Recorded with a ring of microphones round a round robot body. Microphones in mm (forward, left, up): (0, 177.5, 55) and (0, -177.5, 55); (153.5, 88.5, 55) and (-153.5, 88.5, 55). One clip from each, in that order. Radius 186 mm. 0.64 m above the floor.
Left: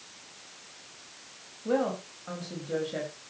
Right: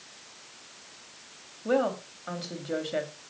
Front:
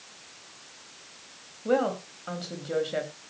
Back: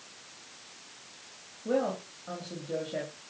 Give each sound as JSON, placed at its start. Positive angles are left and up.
{"t": 1.6, "sound": "a woman speaking", "azimuth_deg": -35, "distance_m": 4.5}